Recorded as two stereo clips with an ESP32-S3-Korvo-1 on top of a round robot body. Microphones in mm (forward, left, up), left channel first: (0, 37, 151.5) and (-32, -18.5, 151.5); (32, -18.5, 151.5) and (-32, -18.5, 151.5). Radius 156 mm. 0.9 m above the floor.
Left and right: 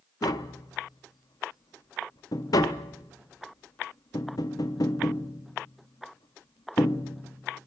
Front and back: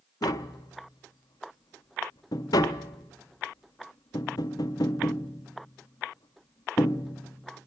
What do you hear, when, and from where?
0.2 s tapping: 30° left, 0.5 m